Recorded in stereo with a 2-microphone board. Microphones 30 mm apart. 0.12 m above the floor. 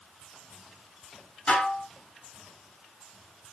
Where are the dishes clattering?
30° left (ahead or behind), 1.0 m.